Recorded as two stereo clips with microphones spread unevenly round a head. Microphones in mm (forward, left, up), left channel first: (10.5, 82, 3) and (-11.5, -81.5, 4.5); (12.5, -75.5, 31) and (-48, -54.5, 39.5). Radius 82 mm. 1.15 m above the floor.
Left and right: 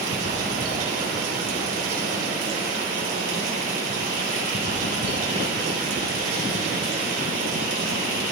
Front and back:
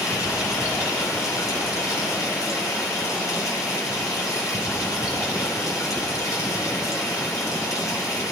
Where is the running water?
50° right, 3 m.